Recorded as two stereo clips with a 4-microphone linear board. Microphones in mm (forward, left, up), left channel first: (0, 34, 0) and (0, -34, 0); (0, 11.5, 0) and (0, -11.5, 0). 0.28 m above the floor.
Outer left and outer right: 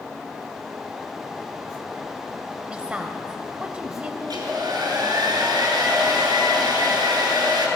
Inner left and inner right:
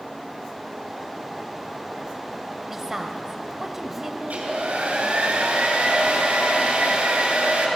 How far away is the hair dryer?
About 3 m.